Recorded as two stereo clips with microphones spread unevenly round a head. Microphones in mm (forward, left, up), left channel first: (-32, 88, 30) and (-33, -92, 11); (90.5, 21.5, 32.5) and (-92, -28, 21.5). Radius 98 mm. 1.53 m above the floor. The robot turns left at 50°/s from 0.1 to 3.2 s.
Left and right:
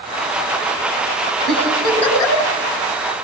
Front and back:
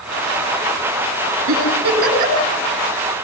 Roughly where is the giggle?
Behind.